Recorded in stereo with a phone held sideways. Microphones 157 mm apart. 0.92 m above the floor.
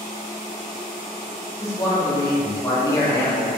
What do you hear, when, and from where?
1.6 s a man speaking: 20° left (ahead or behind), 1.0 m